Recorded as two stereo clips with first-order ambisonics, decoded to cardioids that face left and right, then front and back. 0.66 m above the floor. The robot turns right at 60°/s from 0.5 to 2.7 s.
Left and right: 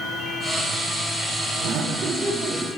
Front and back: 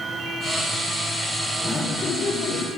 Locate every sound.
1.6 s laughter: 75° right, 1.2 m; by 2.7 s 10° right, 1.2 m